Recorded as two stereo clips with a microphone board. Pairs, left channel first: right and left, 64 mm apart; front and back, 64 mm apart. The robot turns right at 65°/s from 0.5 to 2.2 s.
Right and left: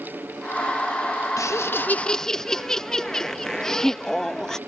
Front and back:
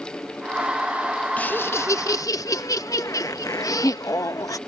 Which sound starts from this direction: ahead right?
Laughter, at 1.4 s.